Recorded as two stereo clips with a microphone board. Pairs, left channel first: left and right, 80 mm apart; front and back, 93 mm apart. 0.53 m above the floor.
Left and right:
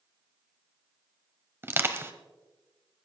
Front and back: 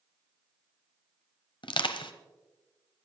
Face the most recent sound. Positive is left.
turn(degrees=-30)